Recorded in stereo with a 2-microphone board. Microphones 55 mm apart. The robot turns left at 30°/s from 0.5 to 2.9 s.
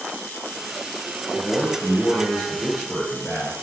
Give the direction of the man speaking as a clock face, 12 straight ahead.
11 o'clock.